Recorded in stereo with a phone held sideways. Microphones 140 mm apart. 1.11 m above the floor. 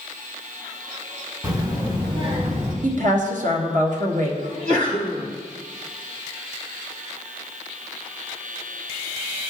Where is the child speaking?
25° right (ahead or behind), 2.5 m; by 2.7 s 50° right (ahead or behind), 3 m.